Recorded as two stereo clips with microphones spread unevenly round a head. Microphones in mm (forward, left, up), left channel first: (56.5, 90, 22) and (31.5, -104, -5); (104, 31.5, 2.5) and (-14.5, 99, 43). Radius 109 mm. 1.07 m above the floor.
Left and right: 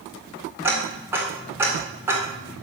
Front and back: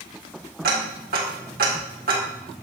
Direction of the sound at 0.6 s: Straight behind.